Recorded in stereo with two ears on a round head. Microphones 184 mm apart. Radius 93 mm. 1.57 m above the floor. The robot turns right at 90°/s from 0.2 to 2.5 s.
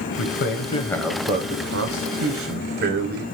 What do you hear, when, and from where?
0.2 s a man speaking: 105° left, 0.8 m; by 3.2 s 45° right, 0.8 m